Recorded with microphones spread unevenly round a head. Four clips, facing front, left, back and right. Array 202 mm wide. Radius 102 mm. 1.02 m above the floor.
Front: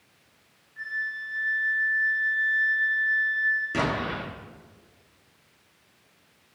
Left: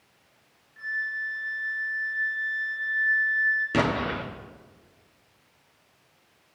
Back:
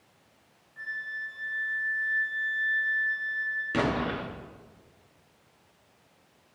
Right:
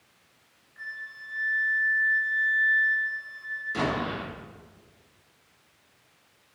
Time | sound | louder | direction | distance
0.8 | a flute | left 9 dB, front 4 dB | 160° right | 1.4 m
3.7 | an explosion | even, even | 90° left | 1.6 m